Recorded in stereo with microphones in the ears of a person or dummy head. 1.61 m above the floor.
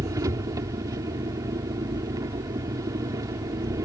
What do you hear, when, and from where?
0.0 s an engine running: 20° right (ahead or behind)